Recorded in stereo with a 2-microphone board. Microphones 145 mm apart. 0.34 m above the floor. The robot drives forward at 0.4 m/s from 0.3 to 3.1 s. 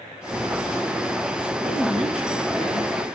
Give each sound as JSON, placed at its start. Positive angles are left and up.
{"t": 0.3, "sound": "a phone buzzing", "side_deg": 65, "distance_m": 5.5}
{"t": 1.6, "sound": "a man speaking", "side_deg": 45, "distance_m": 3.5}